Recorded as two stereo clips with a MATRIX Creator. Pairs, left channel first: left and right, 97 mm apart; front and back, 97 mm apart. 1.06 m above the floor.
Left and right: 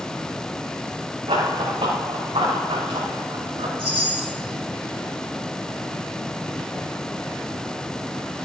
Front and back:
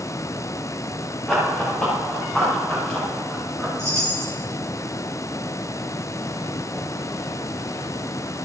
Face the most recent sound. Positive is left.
turn(degrees=-120)